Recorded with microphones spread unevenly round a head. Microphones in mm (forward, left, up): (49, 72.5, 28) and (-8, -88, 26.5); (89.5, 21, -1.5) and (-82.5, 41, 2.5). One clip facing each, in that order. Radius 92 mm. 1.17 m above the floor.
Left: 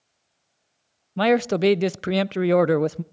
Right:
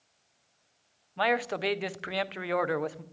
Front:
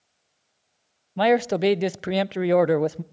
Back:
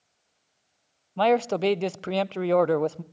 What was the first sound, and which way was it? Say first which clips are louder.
A man speaking: left 10 dB, front 2 dB; 65° left.